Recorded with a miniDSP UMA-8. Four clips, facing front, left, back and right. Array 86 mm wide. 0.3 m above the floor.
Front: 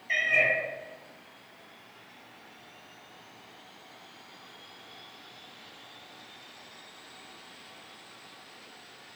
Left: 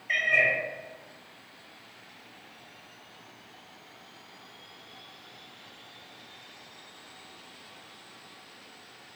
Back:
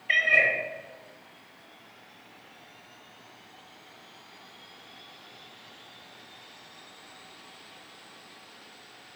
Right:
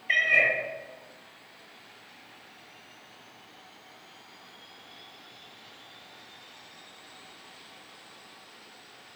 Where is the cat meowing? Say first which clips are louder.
Right 1 dB, back 3 dB; 155° right, 0.7 m.